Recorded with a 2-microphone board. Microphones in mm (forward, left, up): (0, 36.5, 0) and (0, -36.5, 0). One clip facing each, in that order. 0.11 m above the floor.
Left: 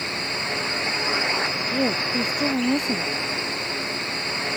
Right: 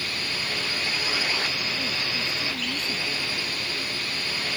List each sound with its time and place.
0.0 s a drone: 20° left (ahead or behind)
1.7 s a woman speaking: 60° left (ahead or behind)